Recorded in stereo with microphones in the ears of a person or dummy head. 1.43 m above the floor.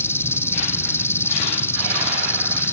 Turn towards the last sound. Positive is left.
turn(degrees=20)  # may be behind; listen again after turning